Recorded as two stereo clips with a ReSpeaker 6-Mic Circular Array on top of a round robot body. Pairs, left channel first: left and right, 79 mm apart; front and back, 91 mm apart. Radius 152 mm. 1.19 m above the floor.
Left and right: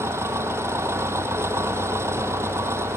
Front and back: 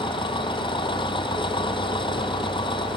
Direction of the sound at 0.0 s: 35° right.